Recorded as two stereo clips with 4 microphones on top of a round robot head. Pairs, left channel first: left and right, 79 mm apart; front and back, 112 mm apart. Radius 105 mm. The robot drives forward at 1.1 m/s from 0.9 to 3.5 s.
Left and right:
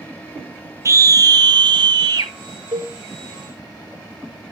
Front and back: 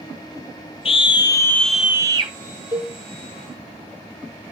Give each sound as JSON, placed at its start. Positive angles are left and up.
{"t": 0.8, "sound": "a scream", "azimuth_deg": -40, "distance_m": 1.2}
{"t": 2.7, "sound": "a cowbell", "azimuth_deg": -120, "distance_m": 1.2}